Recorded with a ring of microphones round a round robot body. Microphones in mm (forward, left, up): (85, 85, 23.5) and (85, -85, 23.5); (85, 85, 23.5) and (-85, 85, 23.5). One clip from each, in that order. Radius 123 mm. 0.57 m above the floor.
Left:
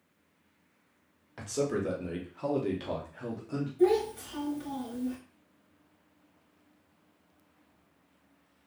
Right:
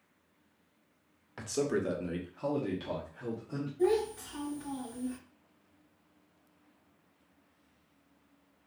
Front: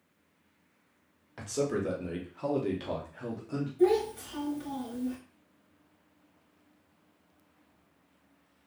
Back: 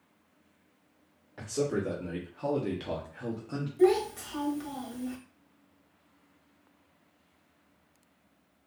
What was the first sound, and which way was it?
A man speaking, 40° right.